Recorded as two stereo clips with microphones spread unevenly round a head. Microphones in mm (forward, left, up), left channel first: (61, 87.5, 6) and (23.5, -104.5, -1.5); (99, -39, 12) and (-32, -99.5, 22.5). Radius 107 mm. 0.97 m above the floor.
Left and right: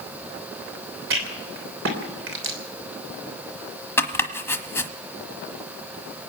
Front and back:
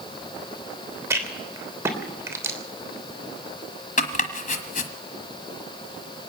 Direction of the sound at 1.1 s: 85° right.